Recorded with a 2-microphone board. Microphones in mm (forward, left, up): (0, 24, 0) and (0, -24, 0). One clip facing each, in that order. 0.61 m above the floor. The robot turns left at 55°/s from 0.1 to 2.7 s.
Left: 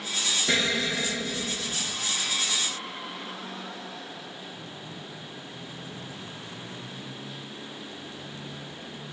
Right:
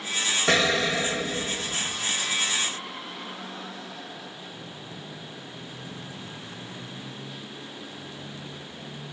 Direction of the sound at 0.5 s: 85° right.